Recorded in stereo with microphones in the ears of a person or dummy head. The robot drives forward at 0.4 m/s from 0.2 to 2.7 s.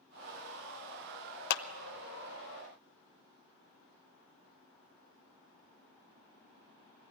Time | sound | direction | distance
1.5 | a clap | 55° left (ahead or behind) | 0.7 m